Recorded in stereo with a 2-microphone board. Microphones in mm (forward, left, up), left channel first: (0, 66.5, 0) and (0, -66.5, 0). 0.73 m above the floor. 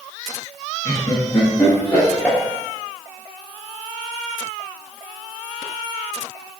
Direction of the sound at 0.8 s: 25° left (ahead or behind).